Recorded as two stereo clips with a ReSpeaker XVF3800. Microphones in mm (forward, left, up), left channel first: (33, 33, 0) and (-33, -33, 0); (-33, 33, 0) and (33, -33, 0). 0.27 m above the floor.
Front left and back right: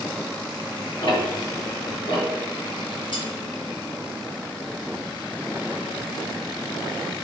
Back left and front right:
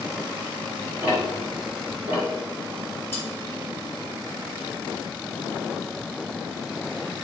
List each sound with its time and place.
1.0 s ticking: 25° left, 3 m
3.1 s cutlery clinking: 70° left, 2.5 m